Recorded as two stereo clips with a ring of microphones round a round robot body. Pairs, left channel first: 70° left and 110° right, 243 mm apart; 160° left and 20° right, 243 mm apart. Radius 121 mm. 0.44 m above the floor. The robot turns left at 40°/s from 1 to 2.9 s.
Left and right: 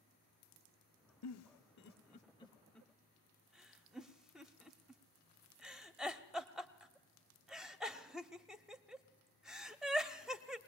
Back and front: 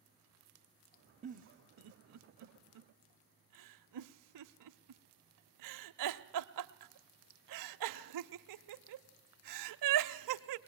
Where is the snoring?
No snoring in this recording.